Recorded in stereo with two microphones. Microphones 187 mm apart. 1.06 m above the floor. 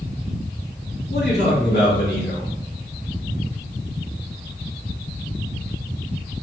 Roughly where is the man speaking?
Left.